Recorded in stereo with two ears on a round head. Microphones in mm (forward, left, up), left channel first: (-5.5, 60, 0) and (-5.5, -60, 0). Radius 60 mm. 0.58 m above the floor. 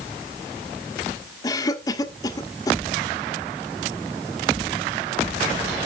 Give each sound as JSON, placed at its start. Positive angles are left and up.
{"t": 1.4, "sound": "a cough", "side_deg": 25, "distance_m": 1.6}